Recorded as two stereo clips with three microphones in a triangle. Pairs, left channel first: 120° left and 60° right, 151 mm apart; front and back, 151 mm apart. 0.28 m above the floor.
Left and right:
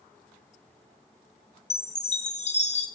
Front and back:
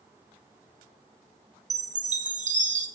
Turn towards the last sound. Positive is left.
turn(degrees=155)